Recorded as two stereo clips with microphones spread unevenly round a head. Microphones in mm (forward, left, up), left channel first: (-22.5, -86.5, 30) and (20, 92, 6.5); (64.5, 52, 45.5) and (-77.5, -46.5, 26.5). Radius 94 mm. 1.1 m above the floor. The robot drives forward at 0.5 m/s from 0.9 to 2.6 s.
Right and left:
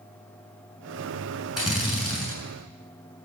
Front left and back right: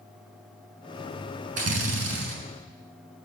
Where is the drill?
165° left, 6 m.